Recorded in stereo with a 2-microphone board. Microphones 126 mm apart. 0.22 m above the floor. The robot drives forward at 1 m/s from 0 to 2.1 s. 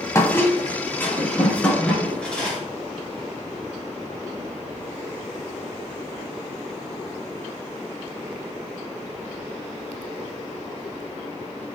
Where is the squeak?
25° left (ahead or behind), 0.9 m; by 2.6 s 10° left (ahead or behind), 2.5 m.